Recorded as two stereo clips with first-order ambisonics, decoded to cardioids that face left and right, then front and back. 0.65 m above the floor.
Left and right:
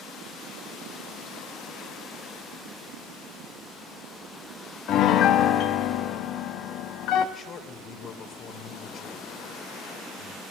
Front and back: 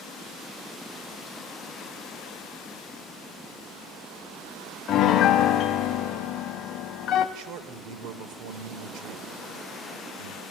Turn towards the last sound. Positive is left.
turn(degrees=150)